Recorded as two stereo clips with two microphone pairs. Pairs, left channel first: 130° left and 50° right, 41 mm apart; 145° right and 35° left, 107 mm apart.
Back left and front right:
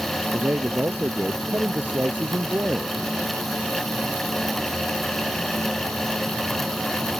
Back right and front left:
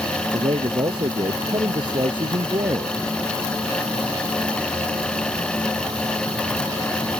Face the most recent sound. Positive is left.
turn(degrees=-10)